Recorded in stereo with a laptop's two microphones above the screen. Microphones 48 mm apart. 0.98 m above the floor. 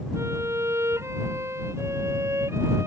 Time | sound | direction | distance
0.1 | a violin | 70° right (ahead or behind) | ?